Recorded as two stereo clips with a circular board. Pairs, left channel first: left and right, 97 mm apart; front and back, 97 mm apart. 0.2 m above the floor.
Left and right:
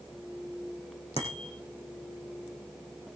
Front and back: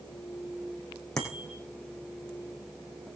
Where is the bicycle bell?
85° left, 7.5 m.